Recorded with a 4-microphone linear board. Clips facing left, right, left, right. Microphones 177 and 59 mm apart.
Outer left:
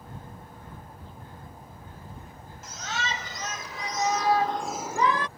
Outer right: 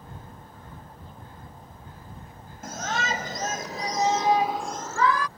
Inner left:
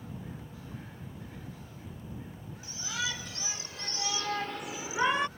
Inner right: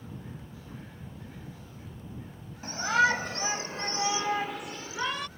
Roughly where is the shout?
Right.